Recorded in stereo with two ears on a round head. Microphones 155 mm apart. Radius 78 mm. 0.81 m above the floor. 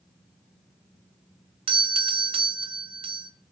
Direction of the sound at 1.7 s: 30° right (ahead or behind).